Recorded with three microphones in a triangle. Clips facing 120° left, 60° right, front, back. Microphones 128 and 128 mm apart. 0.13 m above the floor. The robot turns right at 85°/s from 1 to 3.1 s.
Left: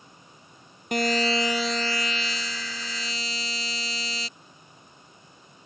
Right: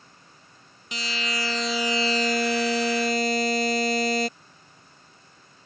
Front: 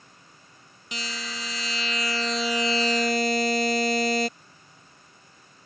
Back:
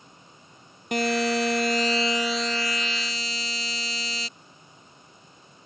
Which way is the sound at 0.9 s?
150° left.